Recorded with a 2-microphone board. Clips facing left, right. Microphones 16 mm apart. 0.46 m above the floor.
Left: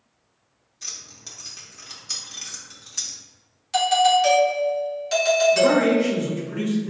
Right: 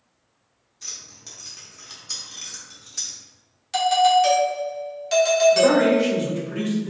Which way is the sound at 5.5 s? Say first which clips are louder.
Right 1 dB; 50° right (ahead or behind).